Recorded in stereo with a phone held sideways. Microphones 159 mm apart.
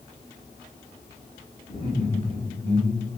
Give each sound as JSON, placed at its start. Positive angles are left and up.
{"t": 1.7, "sound": "laughter", "side_deg": 45, "distance_m": 6.0}